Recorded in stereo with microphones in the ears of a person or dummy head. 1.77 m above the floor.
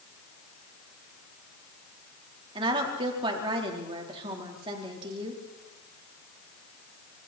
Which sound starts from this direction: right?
A woman speaking, at 2.5 s.